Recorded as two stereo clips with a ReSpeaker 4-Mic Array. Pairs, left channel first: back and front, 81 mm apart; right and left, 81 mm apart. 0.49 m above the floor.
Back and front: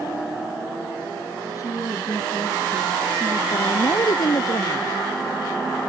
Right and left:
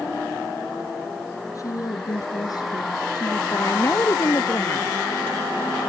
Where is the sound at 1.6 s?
135° right; by 3.4 s 120° right.